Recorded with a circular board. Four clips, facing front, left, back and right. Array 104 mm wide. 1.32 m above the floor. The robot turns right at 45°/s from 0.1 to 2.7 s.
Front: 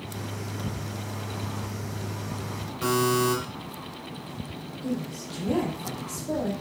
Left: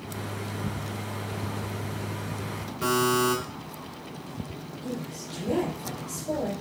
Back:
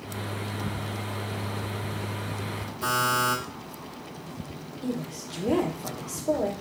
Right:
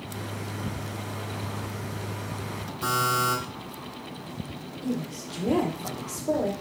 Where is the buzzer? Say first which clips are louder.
Left 2 dB, front 2 dB; 45° left, 2.5 m.